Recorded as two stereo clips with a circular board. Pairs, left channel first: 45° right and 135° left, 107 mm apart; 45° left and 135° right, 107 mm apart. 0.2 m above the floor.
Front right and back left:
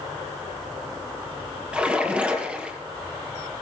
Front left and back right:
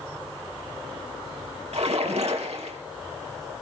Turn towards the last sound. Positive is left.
turn(degrees=-145)